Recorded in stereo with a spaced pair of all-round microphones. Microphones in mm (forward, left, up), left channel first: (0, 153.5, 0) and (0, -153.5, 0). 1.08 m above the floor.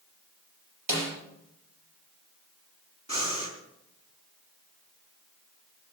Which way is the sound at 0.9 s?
80° right.